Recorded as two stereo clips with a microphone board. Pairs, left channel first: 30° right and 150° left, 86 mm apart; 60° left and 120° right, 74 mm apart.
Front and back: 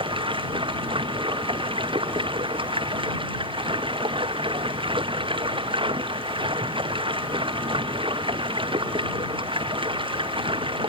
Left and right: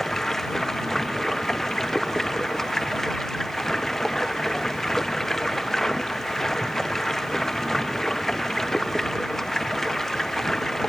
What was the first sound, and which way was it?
Running water, 145° left.